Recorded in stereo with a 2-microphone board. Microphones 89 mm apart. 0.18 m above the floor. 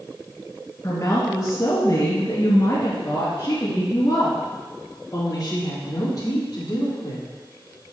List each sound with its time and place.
0.8 s a woman speaking: 35° left (ahead or behind), 2 m; by 7.3 s 40° left (ahead or behind), 5 m